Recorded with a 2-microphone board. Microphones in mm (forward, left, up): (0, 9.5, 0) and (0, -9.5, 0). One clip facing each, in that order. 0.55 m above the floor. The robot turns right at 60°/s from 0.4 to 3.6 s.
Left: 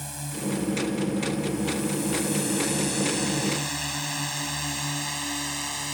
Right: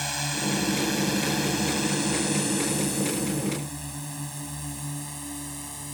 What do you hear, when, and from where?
0.0 s a drone: 45° right (ahead or behind); by 6.0 s 45° left (ahead or behind)